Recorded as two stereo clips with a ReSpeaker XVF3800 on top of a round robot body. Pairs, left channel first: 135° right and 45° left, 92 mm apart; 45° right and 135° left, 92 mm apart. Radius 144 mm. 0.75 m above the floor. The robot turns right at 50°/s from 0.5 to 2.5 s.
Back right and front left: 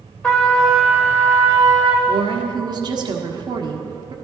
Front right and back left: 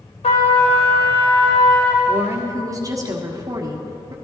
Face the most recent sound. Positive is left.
turn(degrees=85)